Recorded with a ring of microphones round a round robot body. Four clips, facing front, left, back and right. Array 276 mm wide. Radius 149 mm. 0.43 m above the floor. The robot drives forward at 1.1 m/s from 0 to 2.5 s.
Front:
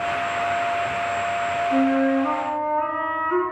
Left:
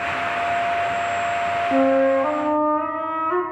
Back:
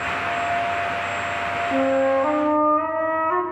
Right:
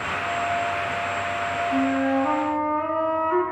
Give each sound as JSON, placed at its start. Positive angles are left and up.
{"t": 1.7, "sound": "a flute", "azimuth_deg": 110, "distance_m": 0.9}